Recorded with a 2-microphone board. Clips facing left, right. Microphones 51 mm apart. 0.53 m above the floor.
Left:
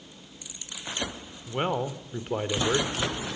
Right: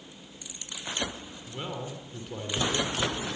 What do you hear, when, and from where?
1.5 s a man speaking: 50° left (ahead or behind), 1.8 m